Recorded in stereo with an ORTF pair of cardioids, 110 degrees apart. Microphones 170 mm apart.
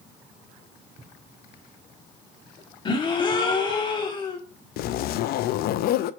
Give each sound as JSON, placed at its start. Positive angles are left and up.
{"t": 1.0, "sound": "writing", "azimuth_deg": -35, "distance_m": 3.5}
{"t": 2.9, "sound": "a gasp", "azimuth_deg": 30, "distance_m": 1.7}
{"t": 4.8, "sound": "a zipper", "azimuth_deg": 70, "distance_m": 0.5}